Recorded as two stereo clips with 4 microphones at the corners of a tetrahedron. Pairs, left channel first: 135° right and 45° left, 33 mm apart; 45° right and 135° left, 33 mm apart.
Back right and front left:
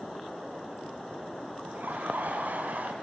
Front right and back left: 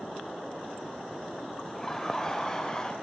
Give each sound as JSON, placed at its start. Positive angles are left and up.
{"t": 1.6, "sound": "laughter", "azimuth_deg": 35, "distance_m": 4.0}